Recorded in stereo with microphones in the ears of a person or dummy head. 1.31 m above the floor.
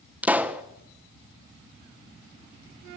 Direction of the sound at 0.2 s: 10° right (ahead or behind).